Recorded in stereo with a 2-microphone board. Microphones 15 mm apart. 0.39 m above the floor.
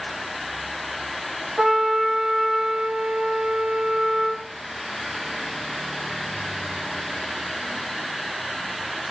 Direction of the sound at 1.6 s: 60° right (ahead or behind).